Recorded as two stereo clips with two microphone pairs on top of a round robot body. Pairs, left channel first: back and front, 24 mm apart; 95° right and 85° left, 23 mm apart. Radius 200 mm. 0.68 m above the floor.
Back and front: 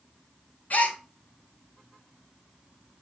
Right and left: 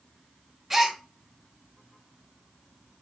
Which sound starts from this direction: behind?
A gasp, at 0.7 s.